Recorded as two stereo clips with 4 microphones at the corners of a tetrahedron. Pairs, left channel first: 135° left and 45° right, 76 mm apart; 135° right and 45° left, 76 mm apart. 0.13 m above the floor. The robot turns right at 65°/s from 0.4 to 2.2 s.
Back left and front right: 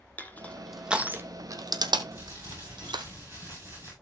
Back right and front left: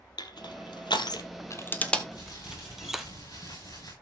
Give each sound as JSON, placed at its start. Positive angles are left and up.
{"t": 0.2, "sound": "crushing", "azimuth_deg": -155, "distance_m": 1.0}
{"t": 2.1, "sound": "crumpling", "azimuth_deg": -110, "distance_m": 9.0}